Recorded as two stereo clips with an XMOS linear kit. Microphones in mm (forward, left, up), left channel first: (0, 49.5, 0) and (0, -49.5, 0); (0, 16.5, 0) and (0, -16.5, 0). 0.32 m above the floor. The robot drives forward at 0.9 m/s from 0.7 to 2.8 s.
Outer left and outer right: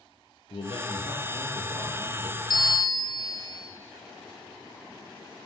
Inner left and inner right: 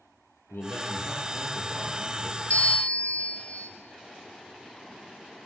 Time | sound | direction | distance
0.5 | a man speaking | 65° left (ahead or behind) | 6.5 m
2.5 | a bell | 45° left (ahead or behind) | 1.7 m